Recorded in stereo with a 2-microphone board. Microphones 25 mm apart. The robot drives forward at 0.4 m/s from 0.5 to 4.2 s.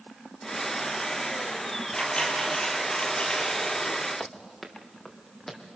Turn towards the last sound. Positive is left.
turn(degrees=25)  # may be behind; listen again after turning